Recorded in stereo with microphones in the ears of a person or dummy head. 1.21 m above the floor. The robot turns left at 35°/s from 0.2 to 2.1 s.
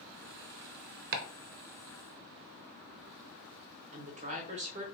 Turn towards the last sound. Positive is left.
turn(degrees=-35)  # may be behind; listen again after turning